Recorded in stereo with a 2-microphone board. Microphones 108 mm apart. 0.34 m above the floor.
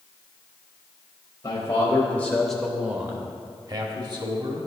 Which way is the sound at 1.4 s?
35° left (ahead or behind).